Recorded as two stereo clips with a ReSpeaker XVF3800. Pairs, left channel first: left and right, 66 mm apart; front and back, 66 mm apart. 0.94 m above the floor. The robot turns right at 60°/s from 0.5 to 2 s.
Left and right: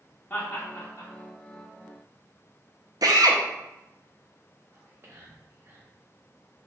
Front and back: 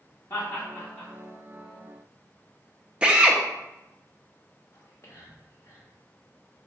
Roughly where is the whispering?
Ahead right.